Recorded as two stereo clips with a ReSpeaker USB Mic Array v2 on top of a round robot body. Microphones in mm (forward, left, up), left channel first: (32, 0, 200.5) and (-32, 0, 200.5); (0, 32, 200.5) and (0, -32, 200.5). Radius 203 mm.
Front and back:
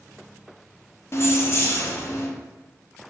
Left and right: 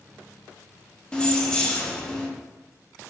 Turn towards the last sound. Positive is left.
turn(degrees=20)